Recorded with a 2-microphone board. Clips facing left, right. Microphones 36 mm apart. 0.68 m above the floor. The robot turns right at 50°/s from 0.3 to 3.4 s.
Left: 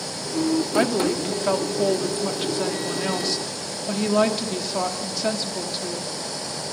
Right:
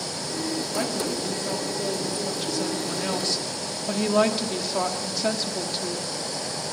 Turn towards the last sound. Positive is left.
turn(degrees=180)